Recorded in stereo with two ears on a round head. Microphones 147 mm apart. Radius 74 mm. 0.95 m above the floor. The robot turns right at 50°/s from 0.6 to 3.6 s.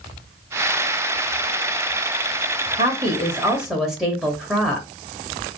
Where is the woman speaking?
45° right, 1.2 m; by 4.9 s 5° right, 1.2 m.